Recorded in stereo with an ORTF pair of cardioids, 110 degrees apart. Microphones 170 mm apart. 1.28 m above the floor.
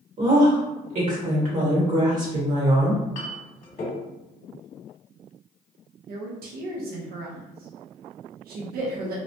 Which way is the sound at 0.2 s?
50° right.